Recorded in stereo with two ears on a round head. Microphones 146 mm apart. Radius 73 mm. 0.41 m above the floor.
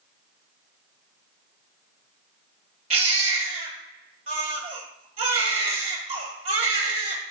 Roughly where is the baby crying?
Right.